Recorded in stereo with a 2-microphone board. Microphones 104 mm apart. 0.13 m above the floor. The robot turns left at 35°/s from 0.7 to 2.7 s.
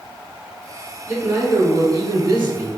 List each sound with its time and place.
1.1 s a man speaking: 40° right, 1.7 m; by 2.8 s 100° right, 1.7 m